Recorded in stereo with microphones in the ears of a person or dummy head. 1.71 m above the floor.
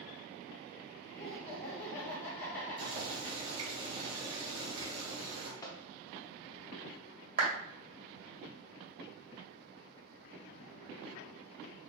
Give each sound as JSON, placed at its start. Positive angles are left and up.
{"t": 1.2, "sound": "laughter", "side_deg": 15, "distance_m": 1.4}
{"t": 2.8, "sound": "boiling", "side_deg": -30, "distance_m": 1.9}
{"t": 5.6, "sound": "a microwave", "side_deg": 25, "distance_m": 0.6}
{"t": 7.4, "sound": "a clap", "side_deg": -40, "distance_m": 1.8}